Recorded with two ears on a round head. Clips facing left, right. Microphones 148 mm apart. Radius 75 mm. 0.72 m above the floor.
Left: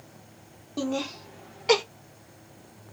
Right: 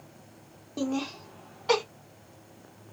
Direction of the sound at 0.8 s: Centre (ahead or behind).